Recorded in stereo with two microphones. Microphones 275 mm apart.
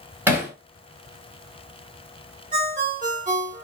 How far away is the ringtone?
About 1.2 m.